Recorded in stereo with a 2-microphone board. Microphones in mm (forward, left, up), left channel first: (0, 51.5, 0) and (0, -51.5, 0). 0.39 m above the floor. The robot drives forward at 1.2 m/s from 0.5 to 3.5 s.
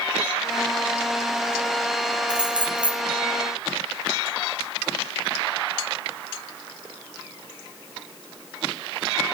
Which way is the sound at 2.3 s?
10° right (ahead or behind).